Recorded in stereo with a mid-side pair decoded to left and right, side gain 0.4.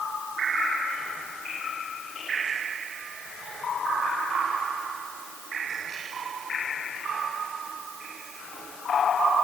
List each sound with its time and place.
Only background noise.